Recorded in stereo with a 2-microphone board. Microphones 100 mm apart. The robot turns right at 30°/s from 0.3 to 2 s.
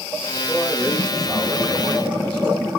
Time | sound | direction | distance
0.5 | a man speaking | straight behind | 3 m